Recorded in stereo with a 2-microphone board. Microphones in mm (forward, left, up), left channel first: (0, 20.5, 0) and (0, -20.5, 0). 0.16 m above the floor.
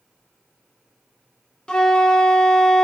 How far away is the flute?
About 1.3 m.